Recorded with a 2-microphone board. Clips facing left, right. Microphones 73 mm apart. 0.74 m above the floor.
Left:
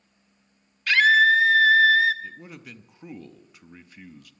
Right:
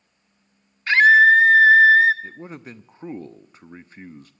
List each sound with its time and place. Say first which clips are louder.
0.9 s a scream: right 5 dB; 25° right (ahead or behind), 1.4 m
2.2 s a man speaking: right 4 dB; 35° right (ahead or behind), 0.6 m